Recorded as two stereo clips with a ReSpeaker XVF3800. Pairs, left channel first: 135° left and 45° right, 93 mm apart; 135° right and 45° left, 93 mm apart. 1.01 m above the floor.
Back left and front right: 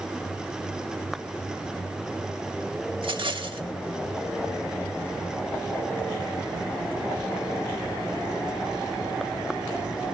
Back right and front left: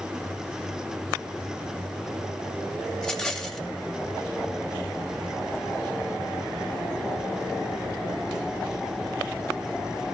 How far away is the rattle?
About 1.7 m.